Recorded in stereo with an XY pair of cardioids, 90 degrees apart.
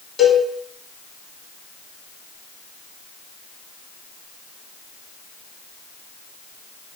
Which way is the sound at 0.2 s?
40° left.